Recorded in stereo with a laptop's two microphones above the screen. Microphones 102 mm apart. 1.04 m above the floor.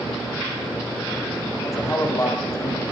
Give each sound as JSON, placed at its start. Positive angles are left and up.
{"t": 1.6, "sound": "a man speaking", "side_deg": 25, "distance_m": 8.0}